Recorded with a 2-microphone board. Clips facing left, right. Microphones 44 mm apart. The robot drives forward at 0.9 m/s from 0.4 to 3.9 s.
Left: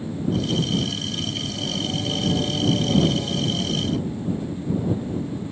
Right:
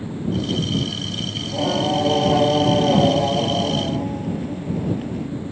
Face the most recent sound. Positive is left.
turn(degrees=-75)  # may be behind; listen again after turning